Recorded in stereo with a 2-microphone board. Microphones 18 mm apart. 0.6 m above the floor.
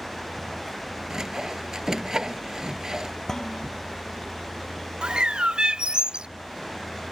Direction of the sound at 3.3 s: 25° left (ahead or behind).